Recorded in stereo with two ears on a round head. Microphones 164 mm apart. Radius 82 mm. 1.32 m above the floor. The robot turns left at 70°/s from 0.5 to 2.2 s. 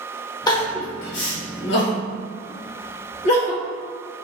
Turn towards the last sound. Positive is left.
turn(degrees=35)  # may be behind; listen again after turning